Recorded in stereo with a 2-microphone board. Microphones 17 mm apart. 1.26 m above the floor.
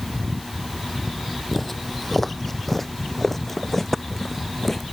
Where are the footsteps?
10° left (ahead or behind); by 4.8 s 15° left (ahead or behind).